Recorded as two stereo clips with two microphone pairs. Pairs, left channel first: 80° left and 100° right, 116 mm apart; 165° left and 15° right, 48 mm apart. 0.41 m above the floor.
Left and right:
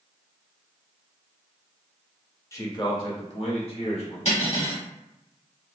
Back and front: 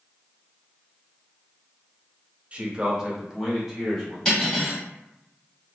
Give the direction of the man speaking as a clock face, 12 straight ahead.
11 o'clock.